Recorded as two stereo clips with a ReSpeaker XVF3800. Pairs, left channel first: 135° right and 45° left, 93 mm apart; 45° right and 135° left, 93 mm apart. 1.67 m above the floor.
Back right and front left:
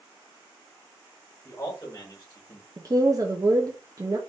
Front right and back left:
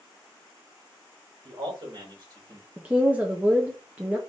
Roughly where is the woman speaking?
Left.